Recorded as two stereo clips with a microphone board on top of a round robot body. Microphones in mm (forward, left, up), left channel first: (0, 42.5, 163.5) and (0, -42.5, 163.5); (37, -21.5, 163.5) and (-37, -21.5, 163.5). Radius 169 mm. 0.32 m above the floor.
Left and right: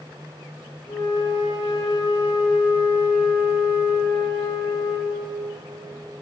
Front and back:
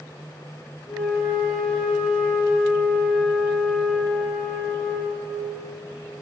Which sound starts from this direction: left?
A flute, at 0.9 s.